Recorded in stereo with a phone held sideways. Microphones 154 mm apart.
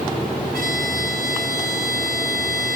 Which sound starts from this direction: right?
A violin, at 0.5 s.